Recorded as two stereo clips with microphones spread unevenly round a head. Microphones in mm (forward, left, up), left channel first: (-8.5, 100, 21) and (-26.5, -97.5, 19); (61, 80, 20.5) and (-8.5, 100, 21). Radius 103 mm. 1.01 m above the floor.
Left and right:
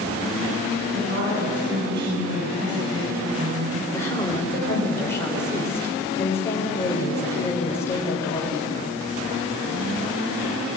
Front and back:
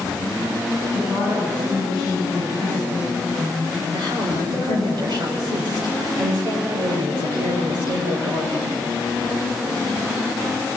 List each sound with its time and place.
0.9 s a woman speaking: 135° right, 9 m
3.9 s a woman speaking: 165° left, 5 m